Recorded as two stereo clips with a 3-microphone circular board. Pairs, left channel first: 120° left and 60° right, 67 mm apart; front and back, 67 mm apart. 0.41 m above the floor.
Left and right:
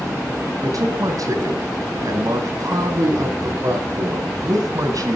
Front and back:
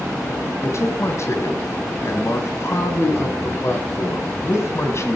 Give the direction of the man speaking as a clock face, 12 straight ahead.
1 o'clock.